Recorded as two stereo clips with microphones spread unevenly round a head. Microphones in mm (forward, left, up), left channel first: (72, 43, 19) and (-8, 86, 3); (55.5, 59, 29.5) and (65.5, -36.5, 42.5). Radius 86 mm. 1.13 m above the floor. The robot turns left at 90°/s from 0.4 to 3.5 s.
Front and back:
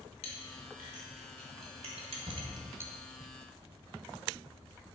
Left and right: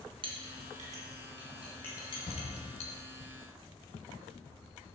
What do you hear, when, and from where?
0.2 s a clink: 55° right, 1.4 m; by 2.9 s 80° left, 1.4 m
2.3 s a shout: 130° left, 1.8 m; by 2.5 s 110° left, 1.8 m